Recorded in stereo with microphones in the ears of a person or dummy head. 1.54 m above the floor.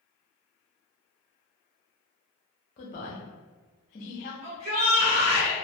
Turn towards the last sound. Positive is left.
turn(degrees=-50)  # may be behind; listen again after turning